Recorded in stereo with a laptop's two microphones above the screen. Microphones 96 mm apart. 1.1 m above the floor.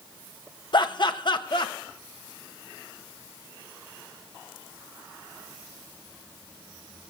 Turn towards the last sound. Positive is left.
turn(degrees=50)  # may be behind; listen again after turning